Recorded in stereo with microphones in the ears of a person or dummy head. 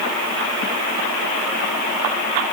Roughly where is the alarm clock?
No alarm clock in this recording.